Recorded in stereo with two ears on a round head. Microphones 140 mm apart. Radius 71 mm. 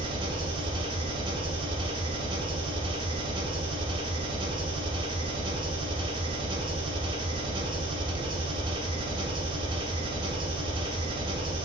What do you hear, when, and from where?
0.0 s an engine running: 30° right (ahead or behind), 0.8 m